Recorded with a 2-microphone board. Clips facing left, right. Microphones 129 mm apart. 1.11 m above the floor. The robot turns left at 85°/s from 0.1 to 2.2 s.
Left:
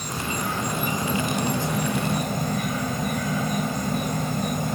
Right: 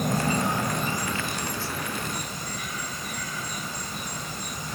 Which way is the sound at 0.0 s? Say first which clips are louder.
Right 4 dB; 125° right.